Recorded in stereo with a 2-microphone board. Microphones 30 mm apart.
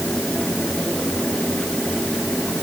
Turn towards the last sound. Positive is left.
No sound to turn to.